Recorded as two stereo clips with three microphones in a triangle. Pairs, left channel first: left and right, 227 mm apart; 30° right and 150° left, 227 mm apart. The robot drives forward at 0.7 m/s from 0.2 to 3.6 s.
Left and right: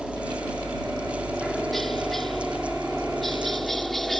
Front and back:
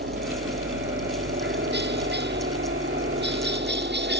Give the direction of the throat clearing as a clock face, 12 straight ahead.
I don't hear throat clearing.